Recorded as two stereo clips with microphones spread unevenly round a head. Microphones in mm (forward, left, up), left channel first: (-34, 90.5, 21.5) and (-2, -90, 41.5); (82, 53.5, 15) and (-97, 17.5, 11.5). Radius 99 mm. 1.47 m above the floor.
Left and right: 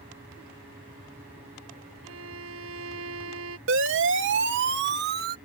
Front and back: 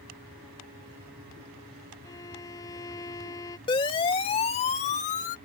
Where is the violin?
60° right.